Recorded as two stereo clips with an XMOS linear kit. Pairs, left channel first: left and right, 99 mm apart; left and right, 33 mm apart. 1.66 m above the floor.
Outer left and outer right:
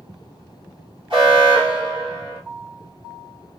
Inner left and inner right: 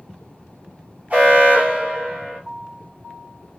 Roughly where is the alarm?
Right.